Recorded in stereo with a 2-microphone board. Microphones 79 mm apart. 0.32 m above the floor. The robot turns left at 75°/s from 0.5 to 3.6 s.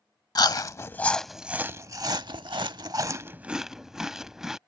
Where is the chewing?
55° left (ahead or behind); by 4.6 s 5° right (ahead or behind).